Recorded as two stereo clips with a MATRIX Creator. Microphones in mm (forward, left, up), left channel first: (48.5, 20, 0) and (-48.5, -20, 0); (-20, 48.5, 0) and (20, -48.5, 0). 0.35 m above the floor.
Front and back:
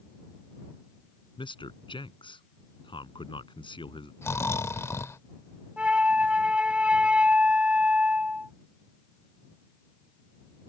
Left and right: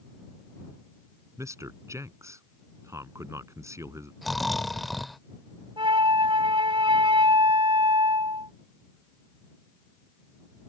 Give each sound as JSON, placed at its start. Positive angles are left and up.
{"t": 1.4, "sound": "a man speaking", "azimuth_deg": -10}
{"t": 4.2, "sound": "snoring", "azimuth_deg": 25}
{"t": 5.8, "sound": "a flute", "azimuth_deg": -80}